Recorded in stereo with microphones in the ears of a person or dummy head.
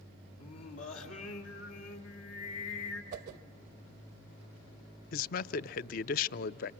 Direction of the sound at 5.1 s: 50° left (ahead or behind).